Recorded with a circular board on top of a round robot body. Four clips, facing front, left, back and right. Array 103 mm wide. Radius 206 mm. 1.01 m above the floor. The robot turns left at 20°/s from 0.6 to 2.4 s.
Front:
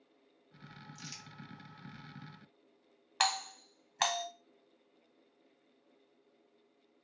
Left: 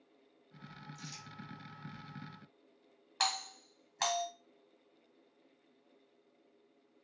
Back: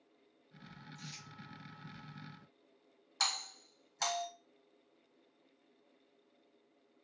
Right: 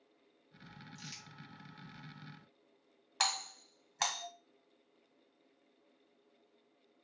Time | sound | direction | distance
0.9 | crumpling | 35° right | 1.4 m
3.2 | a doorbell | 10° right | 1.5 m